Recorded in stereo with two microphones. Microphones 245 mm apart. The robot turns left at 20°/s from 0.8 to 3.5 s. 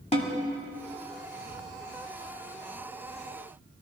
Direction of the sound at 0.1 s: 30° left (ahead or behind).